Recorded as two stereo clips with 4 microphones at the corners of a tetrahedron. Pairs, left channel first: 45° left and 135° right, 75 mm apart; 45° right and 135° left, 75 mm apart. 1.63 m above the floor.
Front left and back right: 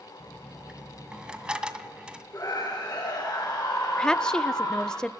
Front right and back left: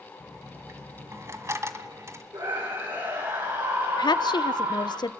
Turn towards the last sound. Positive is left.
turn(degrees=-35)